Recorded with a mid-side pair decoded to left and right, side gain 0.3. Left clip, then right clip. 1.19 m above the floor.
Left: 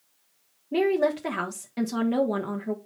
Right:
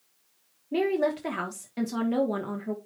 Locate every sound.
0.7 s a woman speaking: 15° left, 1.3 m